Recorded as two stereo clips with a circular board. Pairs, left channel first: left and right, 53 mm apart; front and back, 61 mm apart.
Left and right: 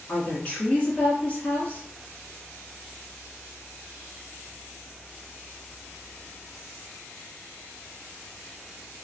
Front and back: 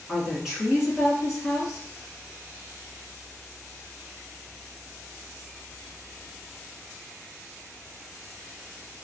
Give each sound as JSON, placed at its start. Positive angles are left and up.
{"t": 0.1, "sound": "a woman speaking", "azimuth_deg": 110, "distance_m": 1.5}